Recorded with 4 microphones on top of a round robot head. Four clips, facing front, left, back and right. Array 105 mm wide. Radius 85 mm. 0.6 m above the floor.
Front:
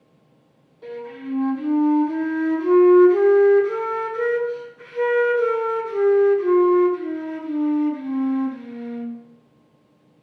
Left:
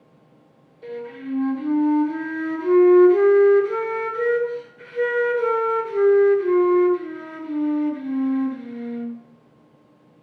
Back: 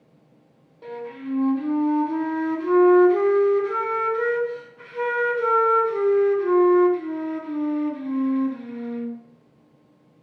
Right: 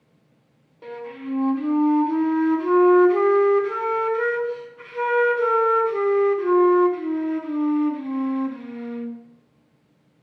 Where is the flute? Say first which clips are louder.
Left 1 dB, even; 105° right, 3 m.